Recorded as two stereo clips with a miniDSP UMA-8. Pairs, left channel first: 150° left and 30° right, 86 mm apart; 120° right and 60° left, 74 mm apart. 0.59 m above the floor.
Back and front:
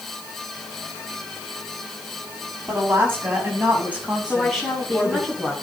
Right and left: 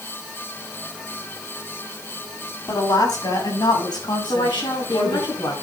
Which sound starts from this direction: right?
A woman speaking, at 2.7 s.